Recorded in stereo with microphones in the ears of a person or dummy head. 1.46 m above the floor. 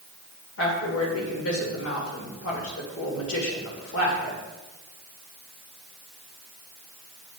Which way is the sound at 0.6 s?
85° left.